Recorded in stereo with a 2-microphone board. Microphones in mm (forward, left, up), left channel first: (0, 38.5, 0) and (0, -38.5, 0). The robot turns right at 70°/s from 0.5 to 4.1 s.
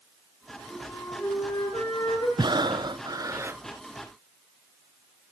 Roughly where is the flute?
Ahead.